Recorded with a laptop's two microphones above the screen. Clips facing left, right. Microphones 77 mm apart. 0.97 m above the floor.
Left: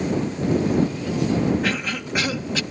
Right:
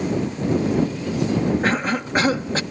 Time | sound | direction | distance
1.6 | a cough | 40° right (ahead or behind) | ?